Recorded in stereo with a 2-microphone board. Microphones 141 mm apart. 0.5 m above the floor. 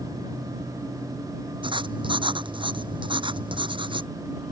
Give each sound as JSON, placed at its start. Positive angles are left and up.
{"t": 1.6, "sound": "writing", "side_deg": -35}